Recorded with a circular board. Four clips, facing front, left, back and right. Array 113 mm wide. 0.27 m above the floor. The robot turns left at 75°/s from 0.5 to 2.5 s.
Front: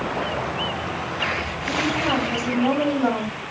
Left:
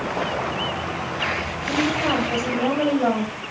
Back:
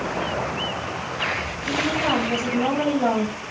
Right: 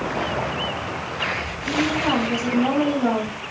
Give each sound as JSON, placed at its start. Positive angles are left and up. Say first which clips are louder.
{"t": 1.7, "sound": "a woman speaking", "louder": "right 1 dB, even", "azimuth_deg": -170, "distance_m": 1.7}